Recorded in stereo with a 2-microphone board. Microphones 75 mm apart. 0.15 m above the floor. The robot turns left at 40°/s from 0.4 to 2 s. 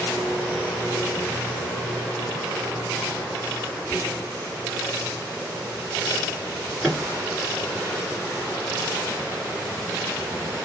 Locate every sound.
3.8 s whispering: 25° left (ahead or behind), 2 m
6.8 s a microwave: 5° right (ahead or behind), 1.8 m